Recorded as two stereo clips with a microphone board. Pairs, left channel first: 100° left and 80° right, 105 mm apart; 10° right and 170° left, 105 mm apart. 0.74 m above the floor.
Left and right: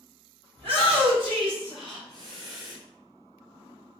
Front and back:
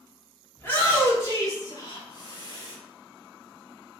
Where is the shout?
80° right, 1.9 m; by 2.8 s 40° right, 1.8 m.